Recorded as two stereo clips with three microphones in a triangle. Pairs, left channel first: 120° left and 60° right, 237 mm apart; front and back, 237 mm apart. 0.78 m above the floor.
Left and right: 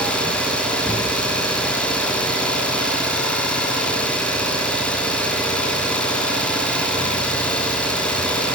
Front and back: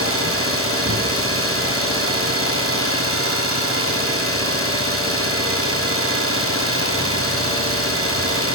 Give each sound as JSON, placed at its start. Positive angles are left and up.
{"t": 0.0, "sound": "an engine running", "azimuth_deg": -155, "distance_m": 5.0}